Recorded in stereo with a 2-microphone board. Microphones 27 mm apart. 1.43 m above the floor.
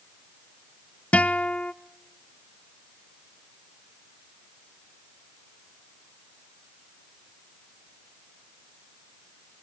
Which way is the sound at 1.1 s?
60° left (ahead or behind).